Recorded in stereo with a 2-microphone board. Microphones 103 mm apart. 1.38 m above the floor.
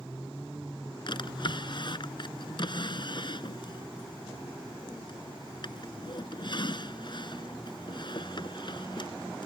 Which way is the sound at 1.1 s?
50° left (ahead or behind).